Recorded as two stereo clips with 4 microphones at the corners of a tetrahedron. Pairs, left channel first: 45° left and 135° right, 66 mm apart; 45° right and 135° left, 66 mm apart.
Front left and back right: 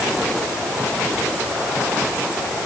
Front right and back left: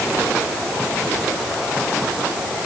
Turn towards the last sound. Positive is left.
No sound to turn to.